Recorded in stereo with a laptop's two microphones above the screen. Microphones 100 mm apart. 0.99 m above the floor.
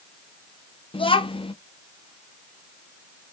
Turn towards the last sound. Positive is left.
turn(degrees=60)  # may be behind; listen again after turning